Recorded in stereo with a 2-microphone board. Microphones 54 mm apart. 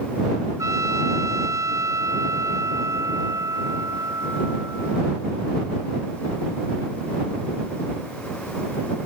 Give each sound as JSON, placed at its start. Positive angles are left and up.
{"t": 0.6, "sound": "a trumpet", "side_deg": -80}